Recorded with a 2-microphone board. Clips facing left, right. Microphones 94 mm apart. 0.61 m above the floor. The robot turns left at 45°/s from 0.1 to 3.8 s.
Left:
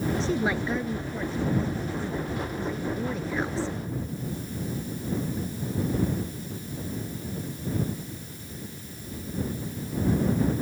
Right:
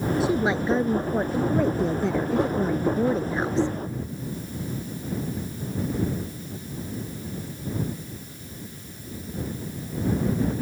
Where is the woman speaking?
10° right; by 3.8 s 170° right.